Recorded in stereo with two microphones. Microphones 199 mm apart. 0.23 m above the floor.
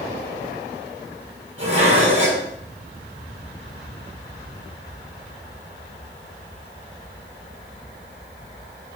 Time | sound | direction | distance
1.6 | dishes clattering | 80° right | 5 m